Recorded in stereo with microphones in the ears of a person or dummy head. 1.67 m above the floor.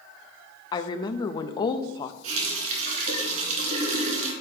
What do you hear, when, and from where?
0.7 s a woman speaking: 25° left (ahead or behind), 0.5 m
2.2 s a running tap: 45° right (ahead or behind), 2 m